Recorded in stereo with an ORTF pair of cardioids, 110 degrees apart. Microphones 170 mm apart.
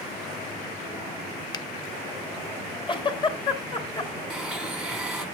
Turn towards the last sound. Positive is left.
turn(degrees=0)